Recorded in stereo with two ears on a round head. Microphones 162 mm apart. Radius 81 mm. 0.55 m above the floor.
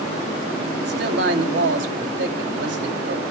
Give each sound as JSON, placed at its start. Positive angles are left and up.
{"t": 0.8, "sound": "a man speaking", "side_deg": -70, "distance_m": 3.5}